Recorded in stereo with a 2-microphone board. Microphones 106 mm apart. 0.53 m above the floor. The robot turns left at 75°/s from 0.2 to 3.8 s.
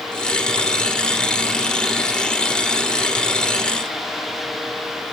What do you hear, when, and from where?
Only background noise.